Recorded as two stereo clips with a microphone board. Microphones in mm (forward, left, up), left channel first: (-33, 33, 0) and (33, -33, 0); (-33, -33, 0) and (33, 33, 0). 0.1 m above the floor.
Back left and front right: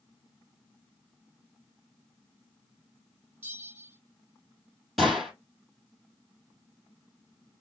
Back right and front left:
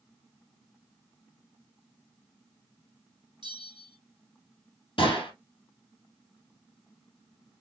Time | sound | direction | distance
3.4 | a bell | 25° left | 2.5 m
5.0 | a gunshot | 135° right | 3 m